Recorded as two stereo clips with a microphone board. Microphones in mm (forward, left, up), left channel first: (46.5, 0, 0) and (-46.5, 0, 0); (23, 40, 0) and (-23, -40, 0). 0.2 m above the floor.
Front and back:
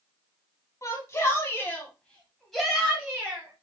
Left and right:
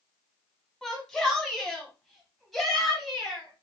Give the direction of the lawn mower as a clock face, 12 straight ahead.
I don't hear a lawn mower.